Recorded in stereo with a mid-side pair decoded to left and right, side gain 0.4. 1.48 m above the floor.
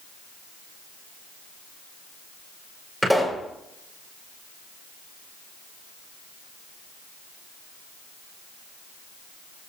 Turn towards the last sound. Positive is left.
turn(degrees=-10)